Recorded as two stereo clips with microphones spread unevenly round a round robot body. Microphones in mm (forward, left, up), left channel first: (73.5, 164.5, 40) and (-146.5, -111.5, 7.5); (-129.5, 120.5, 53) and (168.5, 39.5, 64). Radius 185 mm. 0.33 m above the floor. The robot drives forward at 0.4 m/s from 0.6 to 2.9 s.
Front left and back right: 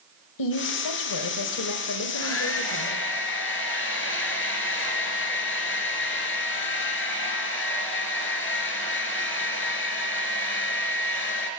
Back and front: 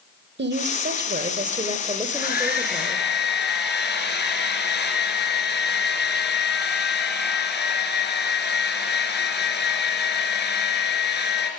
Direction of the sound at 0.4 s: 35° left.